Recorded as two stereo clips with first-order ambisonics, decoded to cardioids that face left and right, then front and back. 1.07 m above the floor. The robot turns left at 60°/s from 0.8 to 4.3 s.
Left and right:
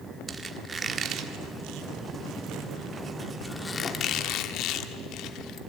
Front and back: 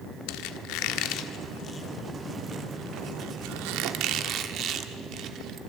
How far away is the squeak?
About 1.5 m.